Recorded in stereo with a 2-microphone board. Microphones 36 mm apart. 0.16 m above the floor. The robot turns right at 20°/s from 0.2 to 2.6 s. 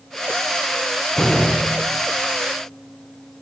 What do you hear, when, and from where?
1.1 s a door slam: 10° left (ahead or behind), 3 m; by 2.0 s 25° left (ahead or behind), 3 m